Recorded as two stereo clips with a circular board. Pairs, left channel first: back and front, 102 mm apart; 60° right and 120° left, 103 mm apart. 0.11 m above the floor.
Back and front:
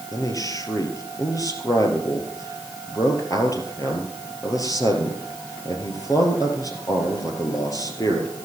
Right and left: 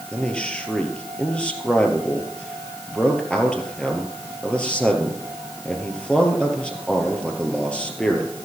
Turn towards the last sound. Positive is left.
turn(degrees=-135)